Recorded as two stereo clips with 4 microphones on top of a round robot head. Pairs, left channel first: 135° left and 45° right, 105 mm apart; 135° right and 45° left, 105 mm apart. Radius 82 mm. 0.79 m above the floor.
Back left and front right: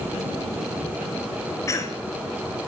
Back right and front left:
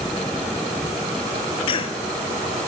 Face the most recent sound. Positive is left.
turn(degrees=-165)